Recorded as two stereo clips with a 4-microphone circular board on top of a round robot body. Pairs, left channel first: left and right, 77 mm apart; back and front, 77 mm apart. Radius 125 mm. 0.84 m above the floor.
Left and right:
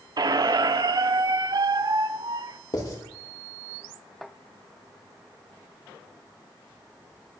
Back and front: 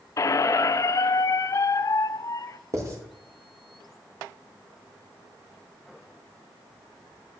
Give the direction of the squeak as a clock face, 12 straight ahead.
4 o'clock.